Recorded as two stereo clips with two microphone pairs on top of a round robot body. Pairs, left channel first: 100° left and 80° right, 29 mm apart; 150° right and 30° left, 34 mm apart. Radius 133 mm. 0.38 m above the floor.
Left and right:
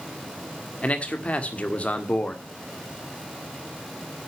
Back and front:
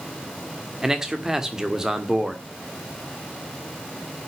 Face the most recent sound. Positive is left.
turn(degrees=115)